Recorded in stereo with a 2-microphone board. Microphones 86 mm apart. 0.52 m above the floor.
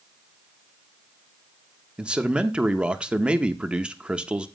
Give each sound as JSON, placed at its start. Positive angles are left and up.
{"t": 2.0, "sound": "a man speaking", "side_deg": -10, "distance_m": 0.7}